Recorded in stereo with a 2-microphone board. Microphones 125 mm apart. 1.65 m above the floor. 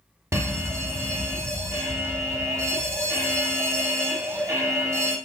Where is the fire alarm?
25° right (ahead or behind), 0.9 m.